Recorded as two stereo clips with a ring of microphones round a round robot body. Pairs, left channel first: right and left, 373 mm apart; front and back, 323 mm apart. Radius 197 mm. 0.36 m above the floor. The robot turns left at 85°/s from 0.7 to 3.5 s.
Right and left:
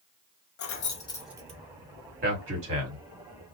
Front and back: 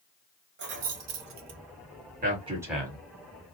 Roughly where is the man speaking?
Behind left.